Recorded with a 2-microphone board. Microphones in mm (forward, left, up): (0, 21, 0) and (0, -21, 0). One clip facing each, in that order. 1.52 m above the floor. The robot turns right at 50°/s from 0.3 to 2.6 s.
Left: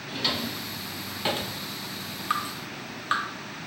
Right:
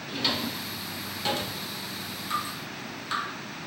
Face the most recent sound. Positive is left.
turn(degrees=40)  # may be behind; listen again after turning